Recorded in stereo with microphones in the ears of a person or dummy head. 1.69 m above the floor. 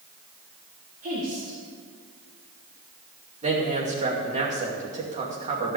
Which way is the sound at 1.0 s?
40° right (ahead or behind).